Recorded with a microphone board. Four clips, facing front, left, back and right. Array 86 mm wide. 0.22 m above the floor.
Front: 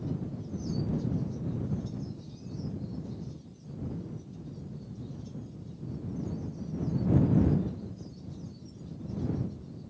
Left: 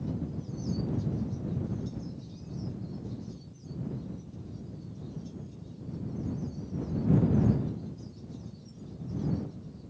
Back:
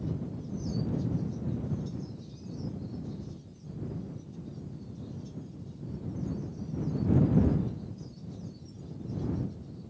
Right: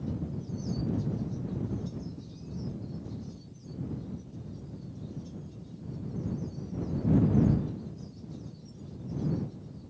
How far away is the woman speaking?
No woman speaking in this recording.